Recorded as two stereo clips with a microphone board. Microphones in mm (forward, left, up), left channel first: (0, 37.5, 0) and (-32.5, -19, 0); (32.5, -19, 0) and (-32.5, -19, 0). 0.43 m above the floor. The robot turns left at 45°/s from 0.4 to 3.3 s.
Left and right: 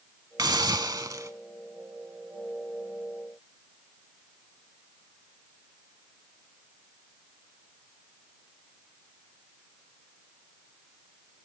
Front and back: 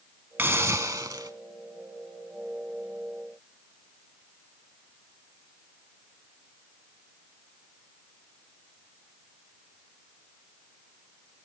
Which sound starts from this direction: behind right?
A hiss, at 0.4 s.